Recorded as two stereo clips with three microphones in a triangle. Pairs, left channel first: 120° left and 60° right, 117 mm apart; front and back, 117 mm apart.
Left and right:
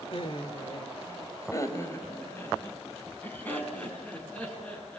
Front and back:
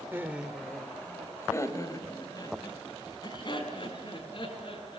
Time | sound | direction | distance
0.1 | laughter | 115° left | 1.8 m